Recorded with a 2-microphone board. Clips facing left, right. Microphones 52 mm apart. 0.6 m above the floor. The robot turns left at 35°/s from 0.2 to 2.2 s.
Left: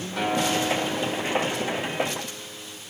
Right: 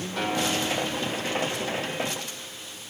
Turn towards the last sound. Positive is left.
turn(degrees=105)